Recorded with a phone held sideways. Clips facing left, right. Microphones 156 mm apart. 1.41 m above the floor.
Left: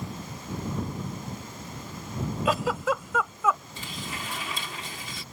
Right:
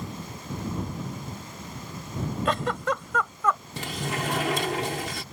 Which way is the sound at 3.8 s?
70° right (ahead or behind).